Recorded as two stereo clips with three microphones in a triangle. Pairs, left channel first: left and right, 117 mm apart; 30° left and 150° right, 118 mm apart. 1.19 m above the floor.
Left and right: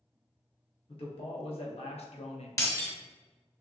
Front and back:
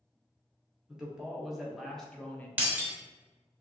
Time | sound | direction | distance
0.9 | a man speaking | 125° left | 1.4 m
2.6 | breaking glass | 140° left | 1.1 m